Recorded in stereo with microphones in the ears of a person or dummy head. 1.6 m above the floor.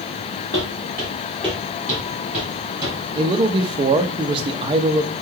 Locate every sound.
0.5 s footsteps: 15° left (ahead or behind), 1.7 m; by 3.0 s 10° right (ahead or behind), 2.5 m
3.1 s a man speaking: 25° right (ahead or behind), 0.5 m